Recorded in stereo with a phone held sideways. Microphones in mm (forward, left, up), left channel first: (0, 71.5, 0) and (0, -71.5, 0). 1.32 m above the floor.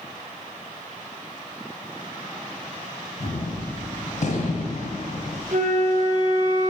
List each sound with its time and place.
3.2 s a gunshot: 55° left (ahead or behind), 2.5 m
5.5 s a flute: 60° right (ahead or behind), 1.6 m